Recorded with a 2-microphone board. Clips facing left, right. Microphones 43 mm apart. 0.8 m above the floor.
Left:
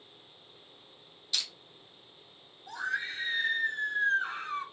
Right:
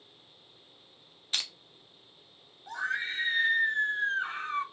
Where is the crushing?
40° right (ahead or behind), 0.5 m.